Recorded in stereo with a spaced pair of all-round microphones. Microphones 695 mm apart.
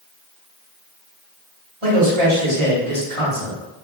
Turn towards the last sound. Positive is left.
turn(degrees=-45)  # may be behind; listen again after turning